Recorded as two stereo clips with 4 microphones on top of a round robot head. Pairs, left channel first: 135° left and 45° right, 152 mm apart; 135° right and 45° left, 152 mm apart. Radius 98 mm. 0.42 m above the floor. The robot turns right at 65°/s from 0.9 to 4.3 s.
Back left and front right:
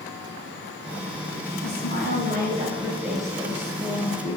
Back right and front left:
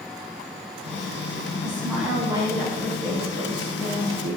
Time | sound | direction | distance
1.6 | a woman speaking | 65° right | 4.5 m